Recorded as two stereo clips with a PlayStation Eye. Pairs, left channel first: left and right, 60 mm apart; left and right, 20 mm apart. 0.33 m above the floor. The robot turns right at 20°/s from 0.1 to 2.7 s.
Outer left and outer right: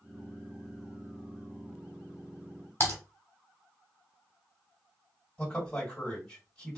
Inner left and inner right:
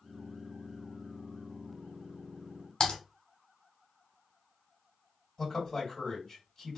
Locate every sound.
2.8 s typing on a keyboard: 40° left (ahead or behind), 0.8 m
5.4 s a man speaking: 10° left (ahead or behind), 1.9 m